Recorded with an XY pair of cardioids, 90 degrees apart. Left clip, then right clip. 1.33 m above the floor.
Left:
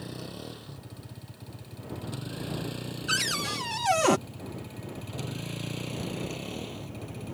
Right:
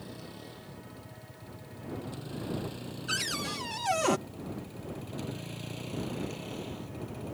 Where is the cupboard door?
35° left.